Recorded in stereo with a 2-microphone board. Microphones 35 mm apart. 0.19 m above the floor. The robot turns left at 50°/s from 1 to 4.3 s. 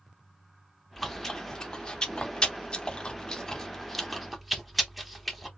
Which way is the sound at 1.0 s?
5° left (ahead or behind).